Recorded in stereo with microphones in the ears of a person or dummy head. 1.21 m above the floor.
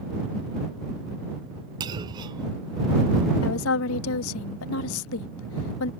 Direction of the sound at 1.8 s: 25° right (ahead or behind).